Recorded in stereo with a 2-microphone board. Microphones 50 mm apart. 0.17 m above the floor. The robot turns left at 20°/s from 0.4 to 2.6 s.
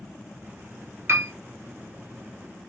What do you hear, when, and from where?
1.1 s a piano: 55° right (ahead or behind), 0.8 m; by 1.3 s 60° right (ahead or behind), 0.8 m